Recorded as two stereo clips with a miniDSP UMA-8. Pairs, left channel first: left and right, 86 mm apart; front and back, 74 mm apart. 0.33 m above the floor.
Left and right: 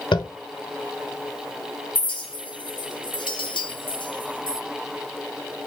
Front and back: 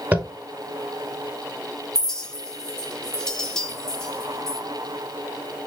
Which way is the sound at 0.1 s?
115° left.